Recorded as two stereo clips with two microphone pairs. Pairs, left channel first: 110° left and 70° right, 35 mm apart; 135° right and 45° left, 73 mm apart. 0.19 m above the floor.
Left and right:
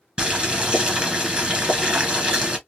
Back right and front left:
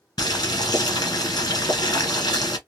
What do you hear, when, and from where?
0.2 s boiling: 140° right, 1.9 m